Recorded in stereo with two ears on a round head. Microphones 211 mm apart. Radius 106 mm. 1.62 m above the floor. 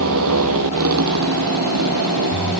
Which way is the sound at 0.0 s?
70° right (ahead or behind).